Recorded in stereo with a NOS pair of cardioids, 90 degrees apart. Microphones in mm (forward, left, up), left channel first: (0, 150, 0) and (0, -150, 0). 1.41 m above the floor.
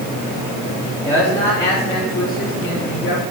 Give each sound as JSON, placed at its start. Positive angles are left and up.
{"t": 0.8, "sound": "a man speaking", "azimuth_deg": 10, "distance_m": 4.0}